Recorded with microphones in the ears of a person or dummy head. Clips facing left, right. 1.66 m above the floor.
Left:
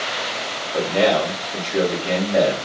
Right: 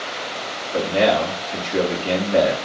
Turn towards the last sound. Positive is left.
turn(degrees=-20)  # may be behind; listen again after turning